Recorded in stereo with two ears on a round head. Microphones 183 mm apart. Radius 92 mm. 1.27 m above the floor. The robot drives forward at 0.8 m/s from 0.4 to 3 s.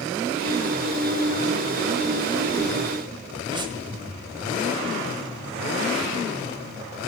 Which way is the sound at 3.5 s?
25° right (ahead or behind).